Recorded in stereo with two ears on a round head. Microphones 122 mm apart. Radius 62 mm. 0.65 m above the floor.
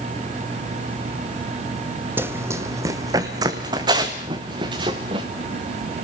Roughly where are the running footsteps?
Centre.